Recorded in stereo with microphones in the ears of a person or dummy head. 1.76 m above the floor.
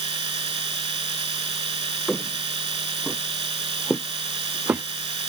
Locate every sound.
0.0 s a machine running: 25° right (ahead or behind)
2.1 s footsteps: centre (ahead or behind); by 5.3 s 10° right (ahead or behind)